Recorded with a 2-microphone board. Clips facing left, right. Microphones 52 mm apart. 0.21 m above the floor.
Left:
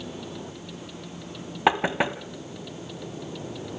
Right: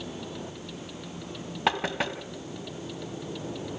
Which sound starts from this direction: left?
Knocking, at 1.7 s.